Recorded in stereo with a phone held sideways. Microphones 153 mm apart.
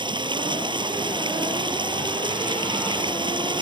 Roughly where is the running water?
Right.